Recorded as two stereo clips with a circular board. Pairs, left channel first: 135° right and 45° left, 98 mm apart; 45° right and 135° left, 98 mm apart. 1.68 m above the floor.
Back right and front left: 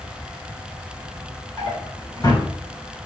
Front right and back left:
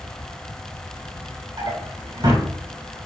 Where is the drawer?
170° left, 3.5 m.